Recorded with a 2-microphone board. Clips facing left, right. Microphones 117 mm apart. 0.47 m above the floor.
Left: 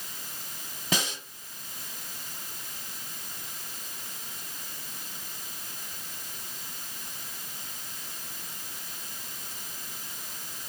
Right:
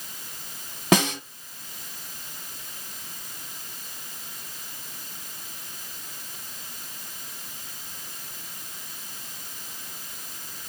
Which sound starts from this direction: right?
A snare drum, at 0.9 s.